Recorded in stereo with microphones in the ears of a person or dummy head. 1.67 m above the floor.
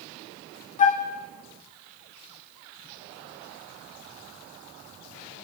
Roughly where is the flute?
Left.